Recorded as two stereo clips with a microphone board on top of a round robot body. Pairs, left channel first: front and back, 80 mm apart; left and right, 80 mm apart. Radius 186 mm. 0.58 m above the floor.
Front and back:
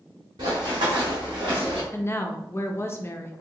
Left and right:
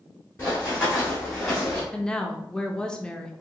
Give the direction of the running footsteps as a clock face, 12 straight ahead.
7 o'clock.